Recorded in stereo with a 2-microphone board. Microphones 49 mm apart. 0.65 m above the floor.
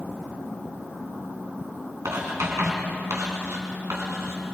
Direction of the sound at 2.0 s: 85° right.